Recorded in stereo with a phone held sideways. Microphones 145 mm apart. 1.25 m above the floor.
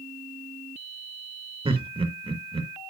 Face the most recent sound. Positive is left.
turn(degrees=-35)  # may be behind; listen again after turning